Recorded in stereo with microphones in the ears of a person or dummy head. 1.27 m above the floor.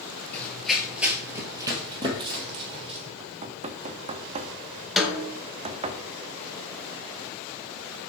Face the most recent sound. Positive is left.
turn(degrees=0)  # may be behind; listen again after turning